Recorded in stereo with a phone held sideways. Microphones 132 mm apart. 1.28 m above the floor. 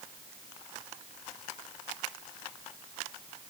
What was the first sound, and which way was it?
Only background noise.